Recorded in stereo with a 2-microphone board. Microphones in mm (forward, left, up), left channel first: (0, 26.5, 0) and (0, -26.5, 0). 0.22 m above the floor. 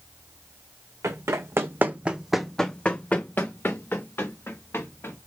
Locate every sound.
1.0 s running footsteps: 70° right (ahead or behind), 0.8 m; by 5.2 s 55° left (ahead or behind), 1.7 m